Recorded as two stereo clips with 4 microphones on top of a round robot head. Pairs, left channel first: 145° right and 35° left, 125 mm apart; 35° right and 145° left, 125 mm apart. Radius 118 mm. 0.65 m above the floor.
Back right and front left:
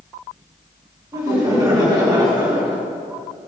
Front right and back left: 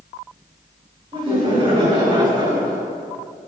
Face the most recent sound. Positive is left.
turn(degrees=85)